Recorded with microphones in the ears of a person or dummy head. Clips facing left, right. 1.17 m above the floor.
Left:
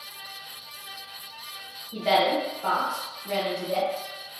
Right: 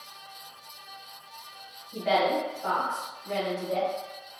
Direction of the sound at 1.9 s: 50° left (ahead or behind).